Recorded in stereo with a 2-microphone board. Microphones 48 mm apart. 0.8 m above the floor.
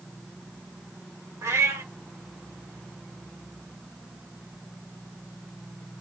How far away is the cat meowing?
About 1.1 m.